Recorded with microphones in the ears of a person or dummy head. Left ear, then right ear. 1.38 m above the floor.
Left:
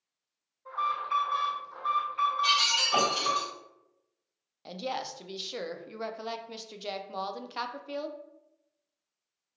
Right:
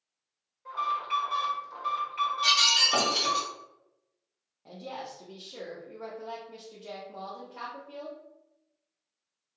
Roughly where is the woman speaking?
Left.